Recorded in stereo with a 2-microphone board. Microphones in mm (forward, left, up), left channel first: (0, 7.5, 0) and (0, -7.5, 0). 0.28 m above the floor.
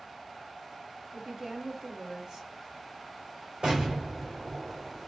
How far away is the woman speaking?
About 2 m.